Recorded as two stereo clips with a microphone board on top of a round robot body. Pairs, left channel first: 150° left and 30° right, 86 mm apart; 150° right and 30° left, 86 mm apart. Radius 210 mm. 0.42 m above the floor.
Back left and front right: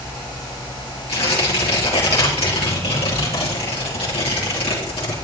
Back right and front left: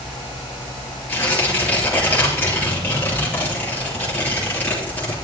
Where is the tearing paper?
140° left, 3.5 m.